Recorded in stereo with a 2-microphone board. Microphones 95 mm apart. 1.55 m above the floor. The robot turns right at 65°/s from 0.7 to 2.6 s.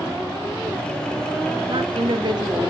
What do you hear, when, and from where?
1.7 s a woman speaking: 100° right, 0.9 m; by 2.7 s 40° right, 0.9 m